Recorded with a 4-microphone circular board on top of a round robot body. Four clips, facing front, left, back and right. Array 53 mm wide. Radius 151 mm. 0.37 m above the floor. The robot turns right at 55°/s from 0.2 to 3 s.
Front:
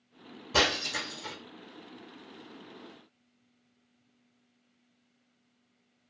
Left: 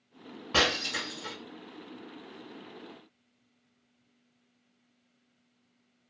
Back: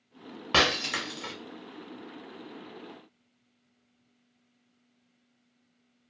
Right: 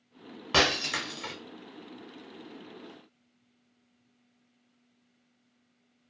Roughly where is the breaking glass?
Behind.